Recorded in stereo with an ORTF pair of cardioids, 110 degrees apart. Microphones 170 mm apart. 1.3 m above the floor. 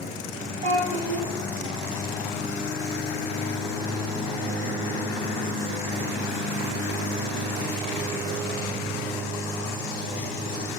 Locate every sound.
0.6 s a child speaking: 65° right, 1.0 m